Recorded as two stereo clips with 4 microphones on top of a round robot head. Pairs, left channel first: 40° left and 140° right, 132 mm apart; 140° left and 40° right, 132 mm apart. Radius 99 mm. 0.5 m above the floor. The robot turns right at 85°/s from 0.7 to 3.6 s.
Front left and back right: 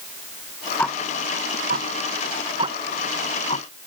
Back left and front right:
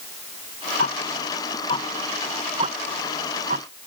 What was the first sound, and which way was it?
Ticking, 115° left.